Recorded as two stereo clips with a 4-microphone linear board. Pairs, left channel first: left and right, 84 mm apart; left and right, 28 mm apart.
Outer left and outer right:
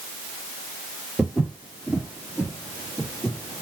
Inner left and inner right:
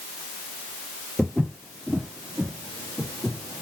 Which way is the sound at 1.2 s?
15° right (ahead or behind).